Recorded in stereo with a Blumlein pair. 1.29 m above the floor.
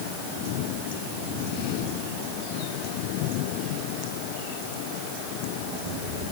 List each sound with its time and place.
Only background noise.